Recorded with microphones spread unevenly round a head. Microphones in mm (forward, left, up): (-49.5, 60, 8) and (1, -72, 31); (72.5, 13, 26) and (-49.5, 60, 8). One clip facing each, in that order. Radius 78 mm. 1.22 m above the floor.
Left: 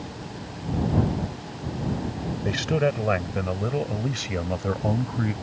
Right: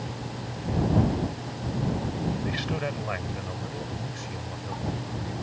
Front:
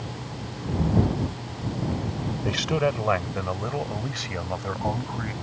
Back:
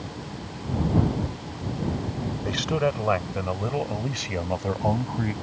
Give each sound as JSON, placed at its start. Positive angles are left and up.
{"t": 2.5, "sound": "a man speaking", "azimuth_deg": 60}